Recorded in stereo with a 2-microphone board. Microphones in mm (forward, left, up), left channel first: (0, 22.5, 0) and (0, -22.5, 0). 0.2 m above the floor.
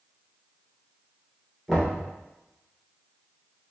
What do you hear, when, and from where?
1.7 s knocking: 10° left (ahead or behind), 2 m